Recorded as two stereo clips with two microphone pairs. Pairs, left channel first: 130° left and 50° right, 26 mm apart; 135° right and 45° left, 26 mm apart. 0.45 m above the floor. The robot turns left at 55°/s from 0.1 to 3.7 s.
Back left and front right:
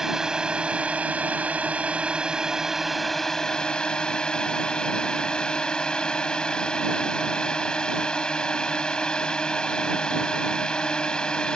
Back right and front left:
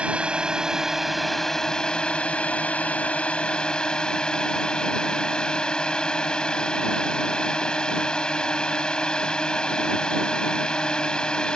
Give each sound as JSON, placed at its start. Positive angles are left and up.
{"t": 0.0, "sound": "a drone", "azimuth_deg": 15}